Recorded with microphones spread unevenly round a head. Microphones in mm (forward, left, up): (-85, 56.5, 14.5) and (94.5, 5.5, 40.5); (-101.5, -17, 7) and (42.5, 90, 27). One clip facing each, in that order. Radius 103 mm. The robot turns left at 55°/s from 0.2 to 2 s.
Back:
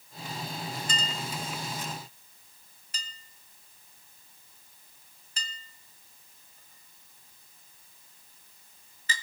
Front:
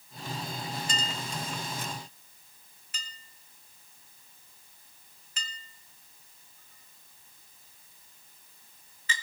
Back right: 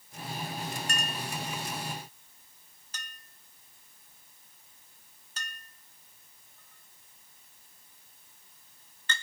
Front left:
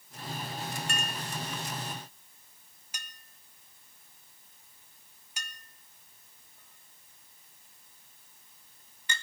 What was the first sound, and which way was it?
A clink, 170° left.